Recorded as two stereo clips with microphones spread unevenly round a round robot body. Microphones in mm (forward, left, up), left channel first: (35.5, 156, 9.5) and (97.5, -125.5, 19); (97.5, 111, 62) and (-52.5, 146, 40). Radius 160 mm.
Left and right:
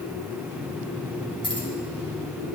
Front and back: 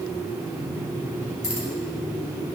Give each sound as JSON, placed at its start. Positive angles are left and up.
{"t": 1.4, "sound": "keys jangling", "azimuth_deg": 30, "distance_m": 2.5}